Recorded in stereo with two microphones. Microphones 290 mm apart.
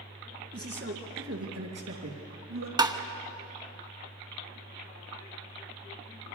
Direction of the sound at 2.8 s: 15° right (ahead or behind).